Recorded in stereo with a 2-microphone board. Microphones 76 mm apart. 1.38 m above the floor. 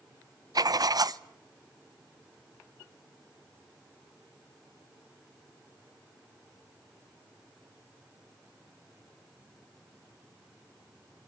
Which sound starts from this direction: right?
Writing, at 0.6 s.